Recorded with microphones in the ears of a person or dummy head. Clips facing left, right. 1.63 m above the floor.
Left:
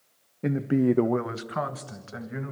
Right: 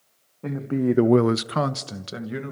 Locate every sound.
0.4 s a man speaking: 20° left (ahead or behind), 1.1 m; by 2.5 s 45° right (ahead or behind), 2 m